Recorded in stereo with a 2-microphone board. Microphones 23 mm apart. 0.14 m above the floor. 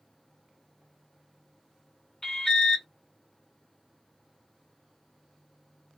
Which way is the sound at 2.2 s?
20° left (ahead or behind).